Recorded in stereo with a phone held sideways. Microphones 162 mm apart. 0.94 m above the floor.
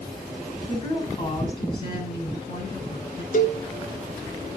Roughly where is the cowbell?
Left.